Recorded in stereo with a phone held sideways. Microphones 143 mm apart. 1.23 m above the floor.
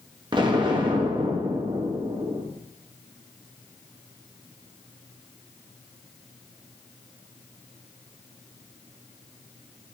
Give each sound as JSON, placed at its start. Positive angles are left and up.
{"t": 0.3, "sound": "an explosion", "side_deg": -35, "distance_m": 1.4}